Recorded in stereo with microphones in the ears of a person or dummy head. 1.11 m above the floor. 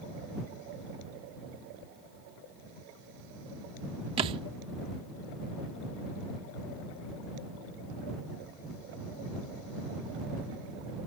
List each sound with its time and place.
4.2 s a thud: 30° right (ahead or behind)